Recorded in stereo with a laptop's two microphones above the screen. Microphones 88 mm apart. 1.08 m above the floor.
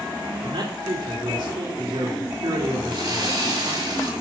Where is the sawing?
60° right (ahead or behind), 4 m.